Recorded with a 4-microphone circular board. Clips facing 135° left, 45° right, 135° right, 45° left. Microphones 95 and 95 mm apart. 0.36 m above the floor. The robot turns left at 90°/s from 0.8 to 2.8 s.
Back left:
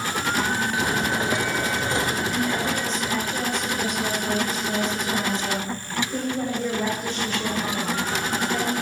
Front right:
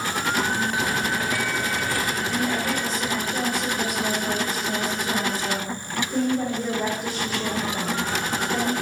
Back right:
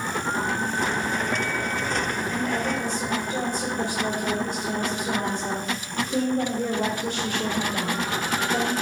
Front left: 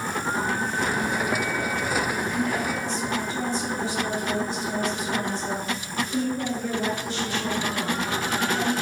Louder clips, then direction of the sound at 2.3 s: Even, even; 85° right.